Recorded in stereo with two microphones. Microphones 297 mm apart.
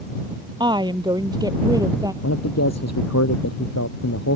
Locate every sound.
0.6 s a woman speaking: 15° right (ahead or behind); by 2.1 s 10° right (ahead or behind)
2.2 s a man speaking: 60° left (ahead or behind)